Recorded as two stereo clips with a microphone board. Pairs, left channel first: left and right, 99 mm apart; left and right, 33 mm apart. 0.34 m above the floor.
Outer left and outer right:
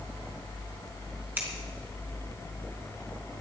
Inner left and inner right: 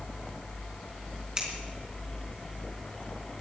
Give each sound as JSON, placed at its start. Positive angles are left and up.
{"t": 1.4, "sound": "scissors", "side_deg": -20, "distance_m": 3.5}